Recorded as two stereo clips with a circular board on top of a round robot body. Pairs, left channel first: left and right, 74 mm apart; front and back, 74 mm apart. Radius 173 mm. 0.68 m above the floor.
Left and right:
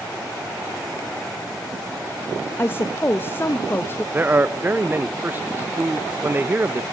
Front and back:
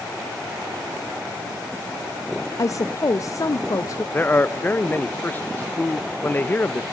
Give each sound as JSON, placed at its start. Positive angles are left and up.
{"t": 2.6, "sound": "a woman speaking", "azimuth_deg": 35, "distance_m": 0.7}
{"t": 4.1, "sound": "a man speaking", "azimuth_deg": -45, "distance_m": 0.6}